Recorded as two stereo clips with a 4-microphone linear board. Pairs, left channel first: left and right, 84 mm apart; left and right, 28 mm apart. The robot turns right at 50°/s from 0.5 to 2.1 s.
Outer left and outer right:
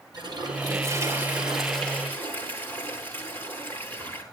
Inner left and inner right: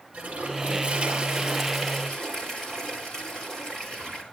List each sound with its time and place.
0.1 s a toilet flushing: 55° right, 9.5 m; by 4.2 s 25° left, 9.5 m